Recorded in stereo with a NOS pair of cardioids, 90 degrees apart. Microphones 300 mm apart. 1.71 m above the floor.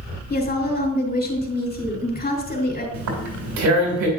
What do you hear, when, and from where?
0.3 s a woman speaking: 30° left, 4 m
2.9 s tearing paper: 65° right, 3 m